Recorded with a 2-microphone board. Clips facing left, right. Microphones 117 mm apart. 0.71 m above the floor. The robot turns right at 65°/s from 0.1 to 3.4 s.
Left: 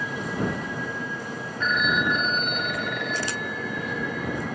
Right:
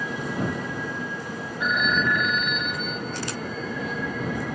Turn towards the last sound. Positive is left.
turn(degrees=105)